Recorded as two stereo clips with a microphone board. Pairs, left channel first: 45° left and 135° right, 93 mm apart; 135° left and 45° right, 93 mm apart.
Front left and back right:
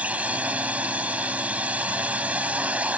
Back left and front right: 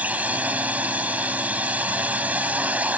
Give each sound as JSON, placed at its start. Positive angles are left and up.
{"t": 0.0, "sound": "a drone", "azimuth_deg": -90}